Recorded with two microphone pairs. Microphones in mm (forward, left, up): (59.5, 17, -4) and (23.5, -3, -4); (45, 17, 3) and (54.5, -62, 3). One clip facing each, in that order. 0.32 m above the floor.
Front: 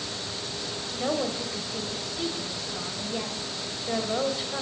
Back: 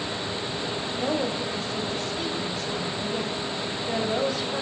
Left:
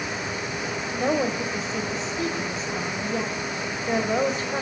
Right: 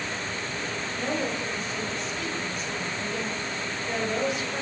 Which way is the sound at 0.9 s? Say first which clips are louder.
Even, left 6 dB; 105° left.